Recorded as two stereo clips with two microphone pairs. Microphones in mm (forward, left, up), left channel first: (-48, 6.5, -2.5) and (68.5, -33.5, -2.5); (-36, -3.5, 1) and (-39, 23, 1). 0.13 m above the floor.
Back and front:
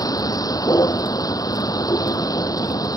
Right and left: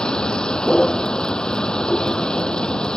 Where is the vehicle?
140° right.